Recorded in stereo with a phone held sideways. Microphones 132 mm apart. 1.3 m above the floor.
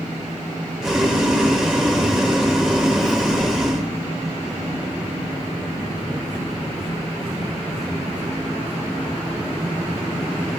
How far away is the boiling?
About 1.9 m.